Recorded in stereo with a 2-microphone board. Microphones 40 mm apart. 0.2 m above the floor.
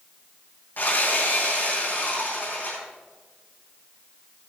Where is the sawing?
55° left (ahead or behind), 6 m.